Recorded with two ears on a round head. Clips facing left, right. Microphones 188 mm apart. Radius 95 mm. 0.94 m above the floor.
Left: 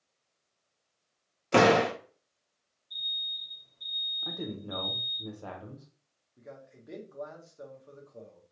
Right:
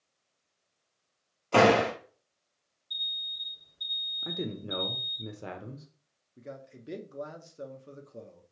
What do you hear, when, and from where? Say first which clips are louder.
1.5 s a door slam: even; 20° left (ahead or behind), 1.0 m
2.9 s an alarm: even; 20° right (ahead or behind), 2 m
4.2 s a man speaking: right 2 dB; 25° right (ahead or behind), 0.8 m
6.4 s a man speaking: right 4 dB; 35° right (ahead or behind), 0.7 m